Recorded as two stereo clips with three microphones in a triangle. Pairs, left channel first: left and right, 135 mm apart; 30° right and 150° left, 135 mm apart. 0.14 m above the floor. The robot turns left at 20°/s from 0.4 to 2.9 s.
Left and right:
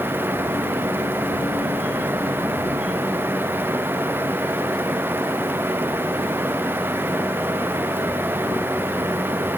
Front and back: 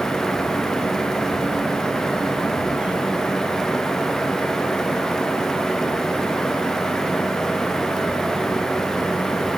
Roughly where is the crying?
I don't hear crying.